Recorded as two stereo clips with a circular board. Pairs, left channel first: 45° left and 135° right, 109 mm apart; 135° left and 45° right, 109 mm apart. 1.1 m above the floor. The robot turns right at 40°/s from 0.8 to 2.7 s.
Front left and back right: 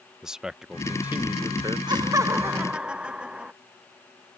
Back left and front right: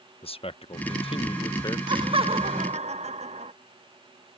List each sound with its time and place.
0.2 s a man speaking: 140° left; by 1.8 s straight behind
1.9 s laughter: 90° right; by 3.5 s 55° right